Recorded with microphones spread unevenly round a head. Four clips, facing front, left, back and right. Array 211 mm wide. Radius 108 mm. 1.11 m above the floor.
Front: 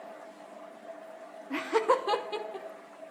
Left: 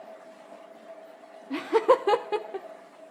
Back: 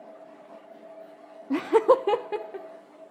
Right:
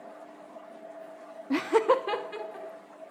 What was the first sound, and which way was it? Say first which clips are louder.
Laughter: left 2 dB, back 7 dB; 145° right.